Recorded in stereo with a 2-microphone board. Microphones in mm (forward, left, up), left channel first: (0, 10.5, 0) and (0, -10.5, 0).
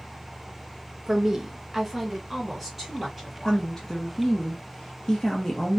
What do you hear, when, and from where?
1.1 s a woman speaking: 20° right (ahead or behind), 0.6 m; by 3.7 s centre (ahead or behind), 1.3 m
3.4 s a woman speaking: 25° left (ahead or behind), 0.6 m